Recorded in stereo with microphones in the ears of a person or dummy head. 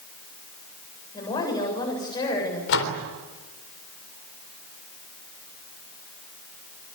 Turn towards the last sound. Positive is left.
turn(degrees=65)  # may be behind; listen again after turning